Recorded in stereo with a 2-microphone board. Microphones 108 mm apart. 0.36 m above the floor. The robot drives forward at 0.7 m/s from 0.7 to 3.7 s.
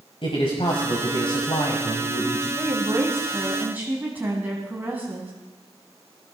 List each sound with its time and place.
0.2 s a man speaking: 55° left (ahead or behind), 2 m; by 2.5 s 40° left (ahead or behind), 2.5 m
2.6 s a woman speaking: 25° right (ahead or behind), 1.6 m; by 5.3 s 20° right (ahead or behind), 2.5 m